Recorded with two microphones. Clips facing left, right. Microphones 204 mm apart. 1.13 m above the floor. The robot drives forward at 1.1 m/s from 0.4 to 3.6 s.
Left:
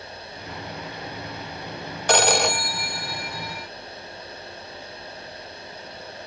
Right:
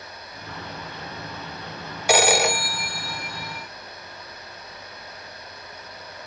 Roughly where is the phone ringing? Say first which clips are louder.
Right 1 dB; centre.